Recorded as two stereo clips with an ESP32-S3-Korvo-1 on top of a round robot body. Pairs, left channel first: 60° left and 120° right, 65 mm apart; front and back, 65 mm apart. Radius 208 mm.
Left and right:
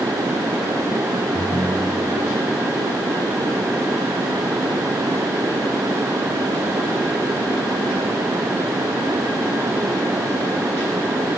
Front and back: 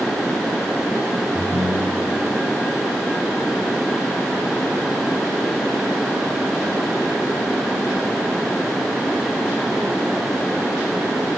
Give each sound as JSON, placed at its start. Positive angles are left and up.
{"t": 1.4, "sound": "a ringtone", "azimuth_deg": 155, "distance_m": 6.5}